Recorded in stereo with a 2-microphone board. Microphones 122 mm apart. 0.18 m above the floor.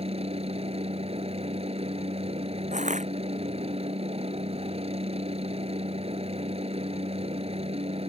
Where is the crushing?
80° right.